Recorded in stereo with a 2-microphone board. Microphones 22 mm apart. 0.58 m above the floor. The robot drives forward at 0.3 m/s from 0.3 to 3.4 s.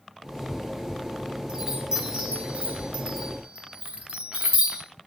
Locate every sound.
1.5 s a chime: 35° right (ahead or behind), 1.0 m; by 4.8 s 60° right (ahead or behind), 0.7 m